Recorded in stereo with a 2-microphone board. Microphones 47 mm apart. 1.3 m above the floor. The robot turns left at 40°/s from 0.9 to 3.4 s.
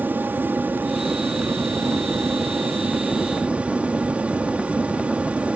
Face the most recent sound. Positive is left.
turn(degrees=-145)